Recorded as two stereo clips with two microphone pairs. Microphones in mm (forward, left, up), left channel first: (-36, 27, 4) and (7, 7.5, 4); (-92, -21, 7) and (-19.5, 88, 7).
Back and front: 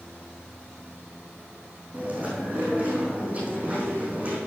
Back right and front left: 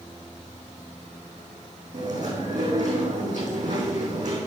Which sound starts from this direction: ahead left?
Chewing, at 1.9 s.